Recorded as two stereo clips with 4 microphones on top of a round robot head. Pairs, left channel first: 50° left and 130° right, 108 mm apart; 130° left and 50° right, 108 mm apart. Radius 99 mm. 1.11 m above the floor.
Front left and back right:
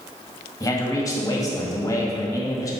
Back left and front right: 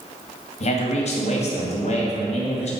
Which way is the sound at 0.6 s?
110° left.